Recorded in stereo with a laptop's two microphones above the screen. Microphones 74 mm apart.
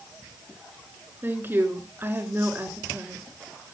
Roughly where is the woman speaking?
Right.